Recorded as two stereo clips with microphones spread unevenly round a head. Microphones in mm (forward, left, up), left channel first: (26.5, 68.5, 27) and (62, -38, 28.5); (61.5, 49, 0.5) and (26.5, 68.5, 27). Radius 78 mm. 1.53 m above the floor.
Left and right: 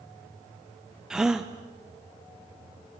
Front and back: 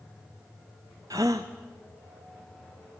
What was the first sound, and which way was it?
A gasp, 160° right.